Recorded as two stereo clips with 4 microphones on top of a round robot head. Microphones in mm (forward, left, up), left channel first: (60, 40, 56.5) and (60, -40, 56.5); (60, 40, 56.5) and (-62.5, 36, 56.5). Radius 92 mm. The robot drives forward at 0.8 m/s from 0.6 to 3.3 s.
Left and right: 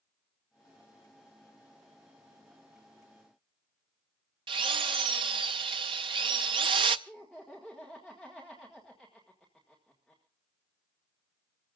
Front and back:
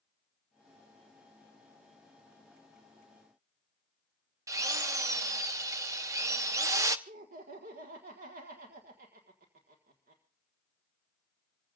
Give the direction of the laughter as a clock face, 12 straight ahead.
6 o'clock.